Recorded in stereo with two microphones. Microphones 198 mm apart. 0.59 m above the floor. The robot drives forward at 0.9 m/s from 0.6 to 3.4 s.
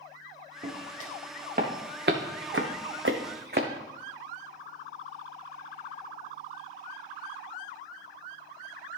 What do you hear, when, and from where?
0.6 s footsteps: 35° right (ahead or behind), 4 m; by 3.7 s 50° right (ahead or behind), 1.7 m